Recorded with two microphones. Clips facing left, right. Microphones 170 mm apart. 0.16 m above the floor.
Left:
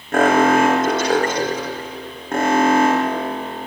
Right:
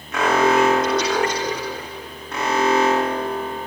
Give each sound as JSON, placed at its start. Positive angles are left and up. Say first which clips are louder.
{"t": 0.1, "sound": "an alarm", "louder": "left 3 dB", "side_deg": 55, "distance_m": 6.5}